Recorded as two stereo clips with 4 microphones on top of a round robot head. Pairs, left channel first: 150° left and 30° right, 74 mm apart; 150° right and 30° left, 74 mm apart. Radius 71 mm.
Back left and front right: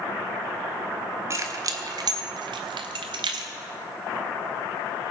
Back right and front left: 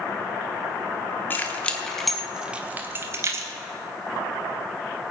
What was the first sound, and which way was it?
Keys jangling, 85° right.